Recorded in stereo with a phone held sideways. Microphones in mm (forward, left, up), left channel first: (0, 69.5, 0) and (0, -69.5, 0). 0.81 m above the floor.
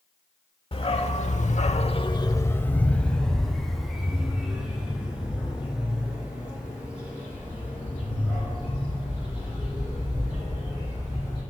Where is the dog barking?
45° left (ahead or behind), 1.2 m; by 11.4 s 15° right (ahead or behind), 9.5 m.